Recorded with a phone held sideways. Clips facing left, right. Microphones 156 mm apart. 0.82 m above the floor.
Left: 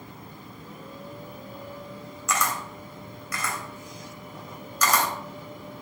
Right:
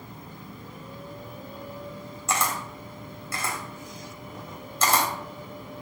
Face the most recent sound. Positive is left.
turn(degrees=-30)  # may be behind; listen again after turning